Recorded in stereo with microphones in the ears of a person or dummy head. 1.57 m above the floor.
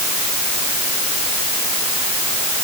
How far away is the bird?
No bird in this recording.